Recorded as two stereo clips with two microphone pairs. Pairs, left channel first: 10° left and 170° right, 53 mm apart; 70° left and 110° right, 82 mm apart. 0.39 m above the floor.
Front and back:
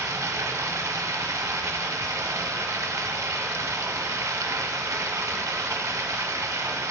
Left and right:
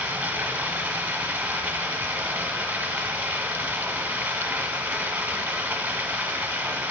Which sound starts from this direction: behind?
Running water, at 0.0 s.